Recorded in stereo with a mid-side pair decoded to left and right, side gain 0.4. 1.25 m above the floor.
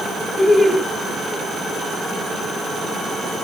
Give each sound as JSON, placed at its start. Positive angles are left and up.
{"t": 0.4, "sound": "laughter", "azimuth_deg": 5, "distance_m": 1.2}